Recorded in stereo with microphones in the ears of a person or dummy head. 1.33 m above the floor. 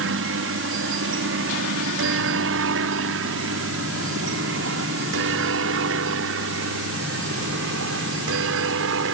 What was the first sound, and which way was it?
A helicopter, 60° right (ahead or behind).